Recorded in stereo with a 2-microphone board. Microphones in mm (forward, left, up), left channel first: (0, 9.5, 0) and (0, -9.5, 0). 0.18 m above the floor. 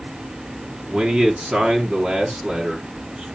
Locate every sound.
0.9 s a man speaking: 60° right (ahead or behind), 2.5 m